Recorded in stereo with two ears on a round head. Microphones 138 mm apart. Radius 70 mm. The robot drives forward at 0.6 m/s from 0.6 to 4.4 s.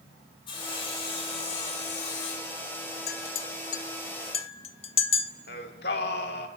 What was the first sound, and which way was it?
Sawing, 35° left (ahead or behind).